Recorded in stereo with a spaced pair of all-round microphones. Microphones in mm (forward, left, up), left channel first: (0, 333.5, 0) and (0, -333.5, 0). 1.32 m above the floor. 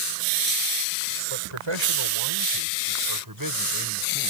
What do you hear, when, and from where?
1.3 s a man speaking: 50° right (ahead or behind); by 4.3 s 25° right (ahead or behind)